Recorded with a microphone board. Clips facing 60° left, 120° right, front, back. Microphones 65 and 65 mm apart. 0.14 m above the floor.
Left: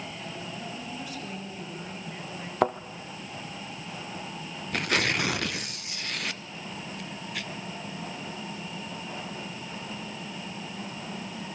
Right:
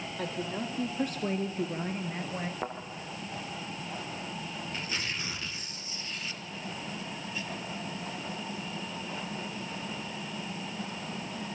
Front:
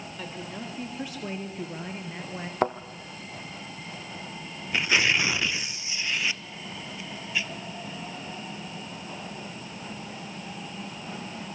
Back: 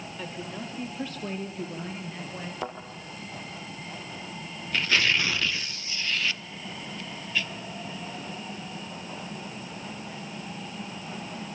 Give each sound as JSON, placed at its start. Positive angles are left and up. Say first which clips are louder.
{"t": 0.2, "sound": "a woman speaking", "louder": "right 4 dB, back 1 dB", "azimuth_deg": -90, "distance_m": 4.0}
{"t": 2.6, "sound": "a thud", "louder": "left 16 dB, front 10 dB", "azimuth_deg": 40, "distance_m": 1.3}
{"t": 4.7, "sound": "tearing paper", "louder": "left 12 dB, front 1 dB", "azimuth_deg": 75, "distance_m": 0.6}